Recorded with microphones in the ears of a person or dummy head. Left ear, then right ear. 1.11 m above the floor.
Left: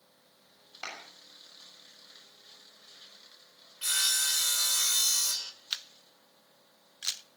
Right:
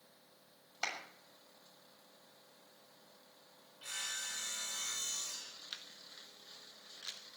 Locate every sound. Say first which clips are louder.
0.8 s a clap: right 1 dB; 15° right (ahead or behind), 6.5 m
3.8 s sawing: left 13 dB; 70° left (ahead or behind), 1.7 m
5.7 s a camera shutter: left 10 dB; 35° left (ahead or behind), 0.7 m